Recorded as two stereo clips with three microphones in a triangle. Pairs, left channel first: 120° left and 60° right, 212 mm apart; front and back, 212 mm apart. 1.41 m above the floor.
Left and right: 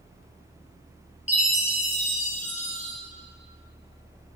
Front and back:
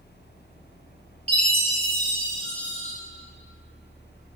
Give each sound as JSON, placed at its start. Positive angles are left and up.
{"t": 1.3, "sound": "a chime", "azimuth_deg": 80, "distance_m": 0.9}